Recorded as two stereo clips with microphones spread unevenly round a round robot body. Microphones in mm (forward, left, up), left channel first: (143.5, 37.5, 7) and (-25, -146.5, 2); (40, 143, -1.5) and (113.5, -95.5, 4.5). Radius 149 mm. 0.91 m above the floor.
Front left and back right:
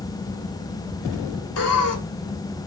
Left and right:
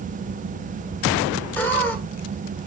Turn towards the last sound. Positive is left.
turn(degrees=25)